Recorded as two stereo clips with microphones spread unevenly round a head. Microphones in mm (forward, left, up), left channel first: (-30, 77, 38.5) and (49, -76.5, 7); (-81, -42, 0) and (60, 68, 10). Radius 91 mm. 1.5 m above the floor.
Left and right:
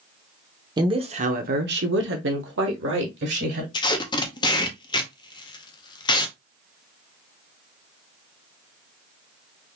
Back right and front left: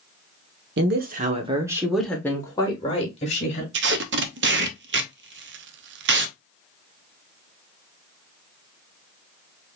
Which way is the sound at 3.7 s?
55° left.